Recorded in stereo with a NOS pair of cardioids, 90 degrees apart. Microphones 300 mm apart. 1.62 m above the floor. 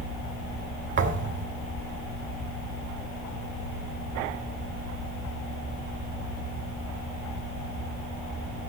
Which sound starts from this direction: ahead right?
A thud, at 1.0 s.